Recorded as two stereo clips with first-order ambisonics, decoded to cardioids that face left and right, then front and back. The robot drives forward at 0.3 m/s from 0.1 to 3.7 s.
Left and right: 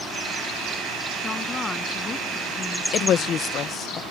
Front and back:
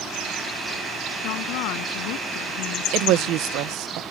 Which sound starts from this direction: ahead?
A woman speaking, at 1.2 s.